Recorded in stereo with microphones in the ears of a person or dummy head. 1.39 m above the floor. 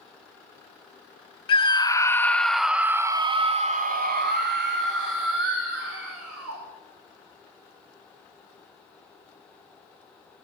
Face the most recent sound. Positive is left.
turn(degrees=-80)